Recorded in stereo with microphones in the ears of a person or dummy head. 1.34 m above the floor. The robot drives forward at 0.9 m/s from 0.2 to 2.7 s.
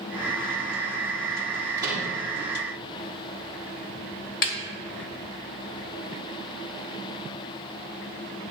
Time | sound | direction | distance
1.8 | a microwave | 20° right (ahead or behind) | 2.5 m
4.4 | a snare drum | 45° left (ahead or behind) | 1.4 m